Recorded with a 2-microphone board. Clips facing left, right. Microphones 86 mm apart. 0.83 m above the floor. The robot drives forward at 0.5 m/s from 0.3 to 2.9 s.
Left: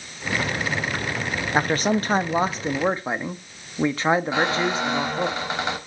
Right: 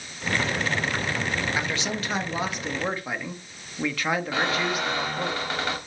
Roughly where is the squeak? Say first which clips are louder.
Left 3 dB; left.